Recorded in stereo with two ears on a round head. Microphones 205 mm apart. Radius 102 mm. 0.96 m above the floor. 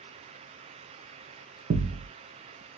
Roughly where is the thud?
Right.